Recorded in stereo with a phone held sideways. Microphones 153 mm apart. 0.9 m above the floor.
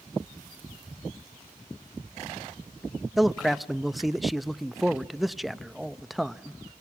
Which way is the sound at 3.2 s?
Centre (ahead or behind).